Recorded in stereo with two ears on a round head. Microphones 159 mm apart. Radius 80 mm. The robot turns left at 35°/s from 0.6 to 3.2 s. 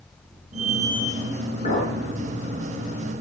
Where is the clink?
40° left (ahead or behind), 7.5 m; by 1.9 s 50° left (ahead or behind), 7.5 m.